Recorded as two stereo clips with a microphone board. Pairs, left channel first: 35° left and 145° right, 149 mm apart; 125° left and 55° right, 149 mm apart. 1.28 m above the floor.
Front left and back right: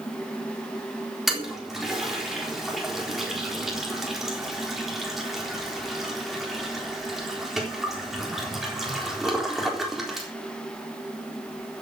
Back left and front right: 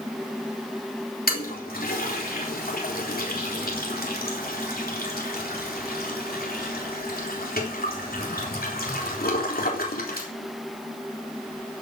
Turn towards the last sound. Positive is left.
turn(degrees=125)